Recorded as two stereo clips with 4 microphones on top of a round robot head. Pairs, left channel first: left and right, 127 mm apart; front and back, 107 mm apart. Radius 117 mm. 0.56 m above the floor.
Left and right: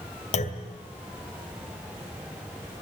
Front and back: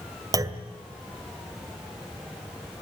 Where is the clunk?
125° left, 1.9 m.